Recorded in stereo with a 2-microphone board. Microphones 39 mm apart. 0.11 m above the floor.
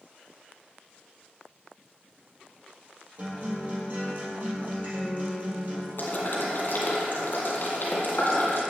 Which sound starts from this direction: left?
Boiling, at 6.0 s.